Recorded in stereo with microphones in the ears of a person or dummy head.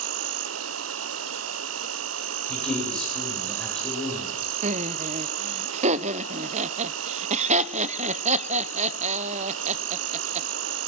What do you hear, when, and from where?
0.0 s an insect: 75° right (ahead or behind), 1.2 m
2.5 s a man speaking: 5° left (ahead or behind), 9 m
4.6 s laughter: 40° right (ahead or behind), 0.8 m